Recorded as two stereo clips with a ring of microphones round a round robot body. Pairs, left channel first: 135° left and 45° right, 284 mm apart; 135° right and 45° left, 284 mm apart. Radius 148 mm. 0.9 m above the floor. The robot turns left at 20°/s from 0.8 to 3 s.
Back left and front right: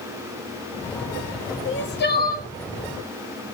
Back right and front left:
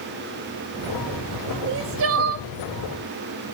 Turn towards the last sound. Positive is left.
turn(degrees=65)